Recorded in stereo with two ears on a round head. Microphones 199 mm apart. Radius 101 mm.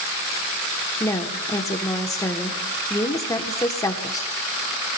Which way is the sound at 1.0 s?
15° left (ahead or behind).